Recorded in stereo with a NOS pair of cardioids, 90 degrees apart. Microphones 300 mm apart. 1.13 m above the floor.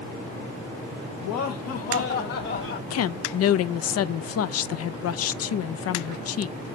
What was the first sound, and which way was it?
Laughter, 65° left.